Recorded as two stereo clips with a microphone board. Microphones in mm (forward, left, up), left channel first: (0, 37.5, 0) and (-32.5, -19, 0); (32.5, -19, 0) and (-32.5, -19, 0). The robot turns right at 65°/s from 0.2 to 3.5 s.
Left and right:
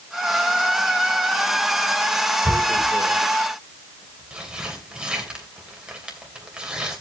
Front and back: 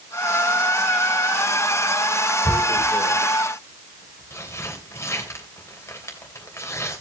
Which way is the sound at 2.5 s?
110° right.